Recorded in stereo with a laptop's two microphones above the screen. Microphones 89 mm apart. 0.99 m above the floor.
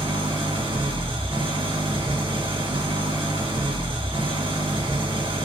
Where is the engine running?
75° right (ahead or behind), 1.0 m.